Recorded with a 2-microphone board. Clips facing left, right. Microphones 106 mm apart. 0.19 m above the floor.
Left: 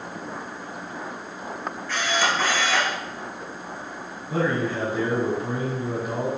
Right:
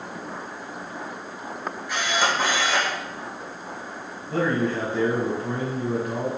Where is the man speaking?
15° left (ahead or behind), 1.0 m.